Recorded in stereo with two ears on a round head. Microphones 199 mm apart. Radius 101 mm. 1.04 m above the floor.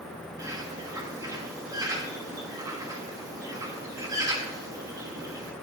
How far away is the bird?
About 2 m.